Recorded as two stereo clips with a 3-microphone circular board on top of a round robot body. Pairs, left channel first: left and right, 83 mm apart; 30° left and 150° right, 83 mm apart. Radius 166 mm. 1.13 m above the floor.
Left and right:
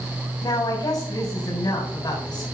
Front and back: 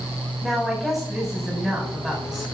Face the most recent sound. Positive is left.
turn(degrees=125)